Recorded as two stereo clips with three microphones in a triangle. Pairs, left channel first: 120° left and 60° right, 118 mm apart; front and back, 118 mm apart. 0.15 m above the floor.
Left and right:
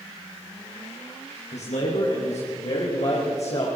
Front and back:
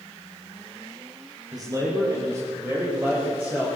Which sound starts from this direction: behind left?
A man speaking, at 1.5 s.